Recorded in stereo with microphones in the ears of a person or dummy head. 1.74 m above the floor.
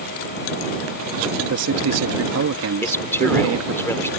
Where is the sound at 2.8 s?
15° left (ahead or behind).